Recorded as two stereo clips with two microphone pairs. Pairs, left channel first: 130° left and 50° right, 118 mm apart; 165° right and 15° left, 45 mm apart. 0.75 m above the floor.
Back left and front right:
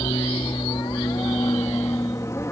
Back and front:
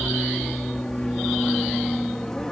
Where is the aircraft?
115° left; by 2.5 s 135° left.